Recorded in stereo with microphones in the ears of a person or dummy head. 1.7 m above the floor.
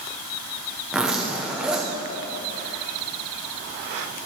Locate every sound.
0.9 s a zipper: 10° right (ahead or behind), 1.0 m